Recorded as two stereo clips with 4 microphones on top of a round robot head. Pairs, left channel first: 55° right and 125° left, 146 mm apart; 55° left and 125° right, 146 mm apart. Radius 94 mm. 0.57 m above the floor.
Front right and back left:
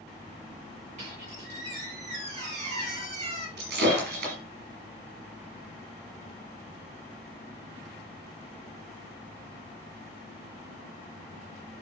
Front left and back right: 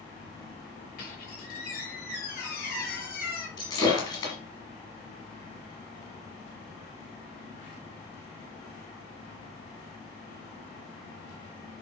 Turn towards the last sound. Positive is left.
turn(degrees=115)